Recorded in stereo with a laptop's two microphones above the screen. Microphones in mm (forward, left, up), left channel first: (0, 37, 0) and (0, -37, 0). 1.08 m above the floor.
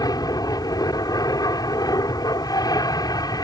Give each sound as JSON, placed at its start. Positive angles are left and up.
{"t": 0.0, "sound": "an aircraft", "side_deg": 65}